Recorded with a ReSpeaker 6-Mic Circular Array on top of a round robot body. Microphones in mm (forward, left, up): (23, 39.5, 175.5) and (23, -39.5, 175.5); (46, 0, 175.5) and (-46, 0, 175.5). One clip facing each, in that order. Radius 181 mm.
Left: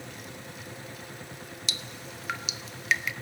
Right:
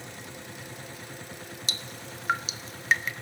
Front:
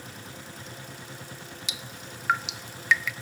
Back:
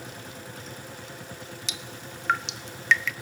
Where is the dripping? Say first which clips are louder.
Even, back 2 dB; 75° right, 1.2 m.